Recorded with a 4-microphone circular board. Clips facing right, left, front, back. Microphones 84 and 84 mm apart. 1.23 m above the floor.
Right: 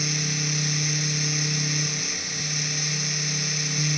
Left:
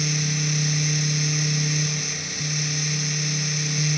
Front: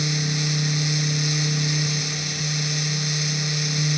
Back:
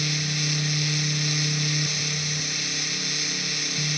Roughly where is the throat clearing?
No throat clearing in this recording.